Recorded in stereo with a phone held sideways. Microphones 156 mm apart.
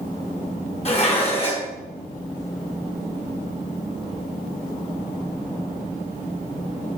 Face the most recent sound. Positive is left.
turn(degrees=35)  # may be behind; listen again after turning